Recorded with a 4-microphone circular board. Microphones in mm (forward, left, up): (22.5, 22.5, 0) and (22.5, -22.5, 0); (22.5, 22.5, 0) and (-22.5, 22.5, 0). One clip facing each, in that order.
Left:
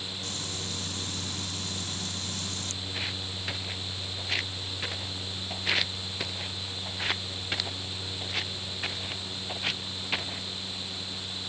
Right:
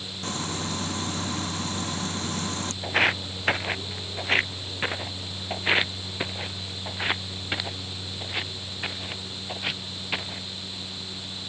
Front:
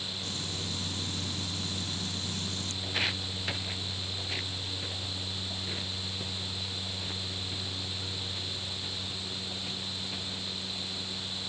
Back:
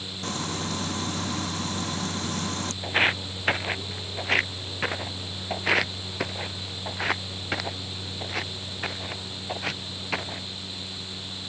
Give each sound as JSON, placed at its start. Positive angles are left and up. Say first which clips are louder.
{"t": 0.2, "sound": "frying", "louder": "right 11 dB, back 12 dB", "azimuth_deg": -140}
{"t": 2.8, "sound": "footsteps", "louder": "right 16 dB, back 10 dB", "azimuth_deg": -125}